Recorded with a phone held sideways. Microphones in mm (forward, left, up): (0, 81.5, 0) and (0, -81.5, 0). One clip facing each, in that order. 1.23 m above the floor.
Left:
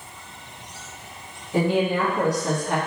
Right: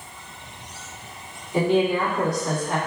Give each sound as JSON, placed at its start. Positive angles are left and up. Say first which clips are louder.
{"t": 1.5, "sound": "a woman speaking", "louder": "right 1 dB", "side_deg": 80, "distance_m": 1.5}